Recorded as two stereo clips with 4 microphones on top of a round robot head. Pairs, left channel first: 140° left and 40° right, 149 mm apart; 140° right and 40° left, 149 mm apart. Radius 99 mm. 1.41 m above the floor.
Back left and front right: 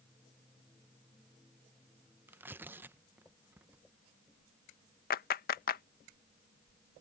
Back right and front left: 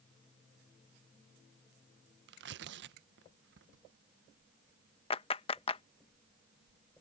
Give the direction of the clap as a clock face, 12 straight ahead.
6 o'clock.